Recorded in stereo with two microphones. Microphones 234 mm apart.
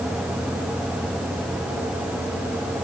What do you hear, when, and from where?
Only background noise.